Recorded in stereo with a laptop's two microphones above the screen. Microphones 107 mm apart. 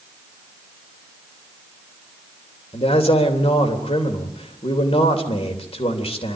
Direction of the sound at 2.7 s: 70° left (ahead or behind).